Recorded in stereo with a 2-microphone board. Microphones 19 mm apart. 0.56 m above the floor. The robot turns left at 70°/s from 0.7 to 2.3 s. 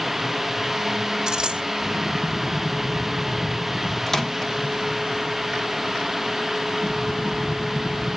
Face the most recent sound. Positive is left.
turn(degrees=10)  # may be behind; listen again after turning